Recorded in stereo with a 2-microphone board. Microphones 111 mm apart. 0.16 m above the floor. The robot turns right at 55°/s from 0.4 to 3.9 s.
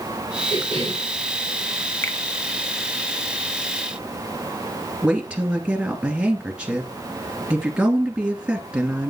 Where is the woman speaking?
10° right (ahead or behind), 2.5 m.